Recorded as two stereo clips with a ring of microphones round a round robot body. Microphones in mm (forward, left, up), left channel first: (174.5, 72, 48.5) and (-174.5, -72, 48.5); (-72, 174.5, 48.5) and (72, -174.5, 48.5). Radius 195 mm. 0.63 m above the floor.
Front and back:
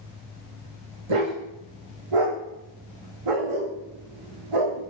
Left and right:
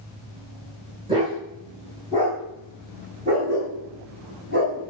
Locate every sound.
1.1 s a dog barking: 145° right, 8.5 m; by 4.8 s 130° right, 9.5 m